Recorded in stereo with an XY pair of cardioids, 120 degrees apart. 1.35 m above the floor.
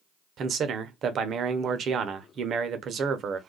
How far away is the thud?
No thud in this recording.